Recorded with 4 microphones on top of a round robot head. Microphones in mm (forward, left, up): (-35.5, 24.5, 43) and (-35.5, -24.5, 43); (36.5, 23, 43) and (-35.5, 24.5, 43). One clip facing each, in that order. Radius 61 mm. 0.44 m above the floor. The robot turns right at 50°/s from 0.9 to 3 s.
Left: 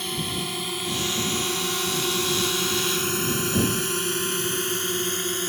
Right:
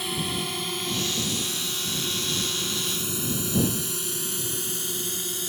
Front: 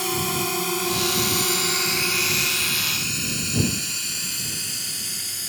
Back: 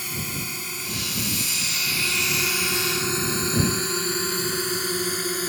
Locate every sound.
0.0 s a drone: straight ahead; by 5.5 s 135° left